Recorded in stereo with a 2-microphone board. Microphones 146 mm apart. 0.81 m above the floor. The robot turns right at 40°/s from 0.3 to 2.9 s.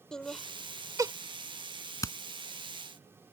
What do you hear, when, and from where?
0.1 s laughter: 5° left (ahead or behind); by 1.1 s 30° right (ahead or behind)
2.0 s hammering: 20° left (ahead or behind); by 2.2 s 15° left (ahead or behind)